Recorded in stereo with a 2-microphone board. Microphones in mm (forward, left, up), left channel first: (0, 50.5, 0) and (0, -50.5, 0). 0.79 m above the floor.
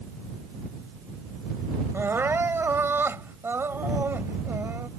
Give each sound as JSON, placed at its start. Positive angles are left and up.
{"t": 1.9, "sound": "crying", "side_deg": -25}